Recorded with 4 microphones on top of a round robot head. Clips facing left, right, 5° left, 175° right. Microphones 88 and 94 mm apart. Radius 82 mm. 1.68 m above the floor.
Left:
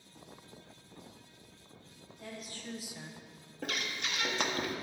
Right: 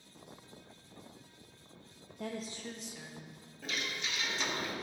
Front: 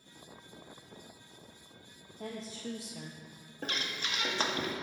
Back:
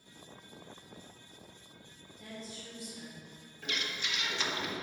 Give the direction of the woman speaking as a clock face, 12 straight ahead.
2 o'clock.